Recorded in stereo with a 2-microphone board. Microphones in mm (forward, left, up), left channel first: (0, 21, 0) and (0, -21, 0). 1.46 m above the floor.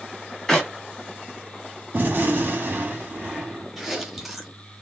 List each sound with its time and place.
0.5 s a clap: 10° left (ahead or behind), 2 m
1.9 s a gunshot: 50° right (ahead or behind), 1.3 m
3.8 s chewing: 5° right (ahead or behind), 1.2 m